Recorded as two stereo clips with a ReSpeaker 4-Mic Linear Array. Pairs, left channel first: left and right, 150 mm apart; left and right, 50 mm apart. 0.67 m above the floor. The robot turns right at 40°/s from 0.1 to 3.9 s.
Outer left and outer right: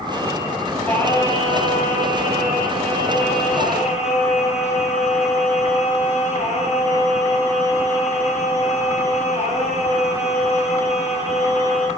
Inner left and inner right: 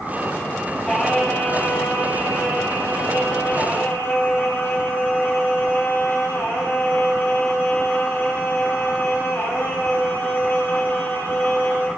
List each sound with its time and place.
0.8 s singing: 10° left, 3.5 m; by 11.9 s 130° left, 3.5 m